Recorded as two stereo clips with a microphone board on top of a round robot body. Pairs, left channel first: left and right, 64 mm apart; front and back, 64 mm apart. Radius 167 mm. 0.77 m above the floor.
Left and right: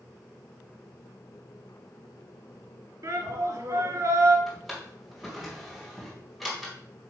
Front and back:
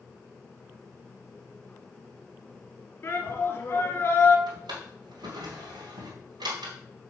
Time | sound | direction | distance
3.0 | a shout | 55° right | 3 m
4.5 | a drawer | straight behind | 1.7 m